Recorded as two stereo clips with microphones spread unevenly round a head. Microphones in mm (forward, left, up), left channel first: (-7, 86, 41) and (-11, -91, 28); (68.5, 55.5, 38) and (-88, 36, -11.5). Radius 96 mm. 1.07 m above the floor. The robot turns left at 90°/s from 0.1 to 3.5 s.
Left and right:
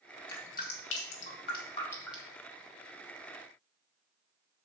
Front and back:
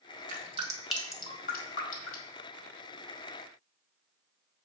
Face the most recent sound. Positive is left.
turn(degrees=-130)